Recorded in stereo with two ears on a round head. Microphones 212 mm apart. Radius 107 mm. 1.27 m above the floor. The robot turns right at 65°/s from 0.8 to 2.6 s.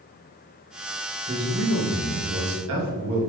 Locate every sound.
1.3 s a man speaking: 145° right, 2.5 m; by 3.2 s 60° right, 2.5 m